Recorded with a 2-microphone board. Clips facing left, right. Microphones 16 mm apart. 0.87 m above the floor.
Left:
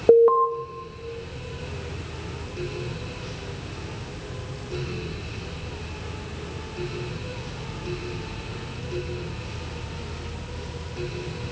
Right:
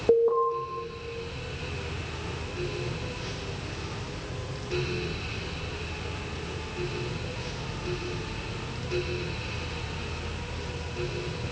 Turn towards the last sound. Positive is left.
turn(degrees=50)  # may be behind; listen again after turning